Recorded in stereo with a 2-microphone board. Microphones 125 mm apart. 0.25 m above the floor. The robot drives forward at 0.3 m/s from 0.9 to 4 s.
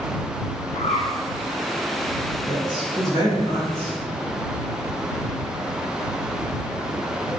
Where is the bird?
60° left (ahead or behind), 1.2 m.